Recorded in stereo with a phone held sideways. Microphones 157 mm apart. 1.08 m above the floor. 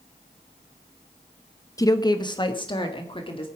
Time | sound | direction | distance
1.8 | a woman speaking | 20° left (ahead or behind) | 0.8 m